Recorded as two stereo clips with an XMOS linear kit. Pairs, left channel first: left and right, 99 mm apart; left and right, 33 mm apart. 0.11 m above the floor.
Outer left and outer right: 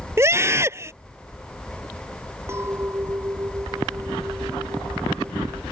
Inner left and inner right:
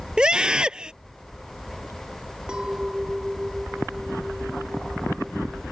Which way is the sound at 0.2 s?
25° right (ahead or behind).